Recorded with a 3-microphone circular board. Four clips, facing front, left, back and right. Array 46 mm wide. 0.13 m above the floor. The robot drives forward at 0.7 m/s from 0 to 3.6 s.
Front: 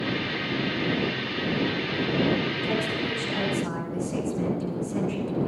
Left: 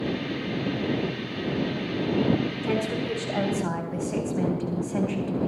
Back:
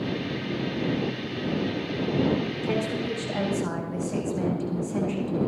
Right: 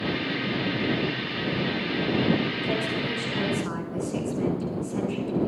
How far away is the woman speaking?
About 8 m.